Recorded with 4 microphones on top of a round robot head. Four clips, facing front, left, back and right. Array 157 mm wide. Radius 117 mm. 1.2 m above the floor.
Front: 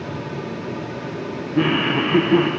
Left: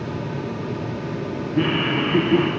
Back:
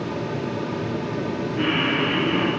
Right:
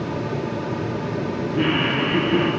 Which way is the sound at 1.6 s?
10° left.